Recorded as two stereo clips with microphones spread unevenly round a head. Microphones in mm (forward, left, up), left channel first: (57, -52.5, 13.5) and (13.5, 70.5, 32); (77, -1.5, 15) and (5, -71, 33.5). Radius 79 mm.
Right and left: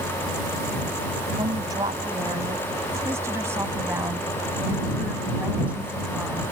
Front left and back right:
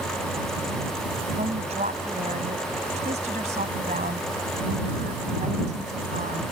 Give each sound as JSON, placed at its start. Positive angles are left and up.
{"t": 1.4, "sound": "a woman speaking", "azimuth_deg": 175}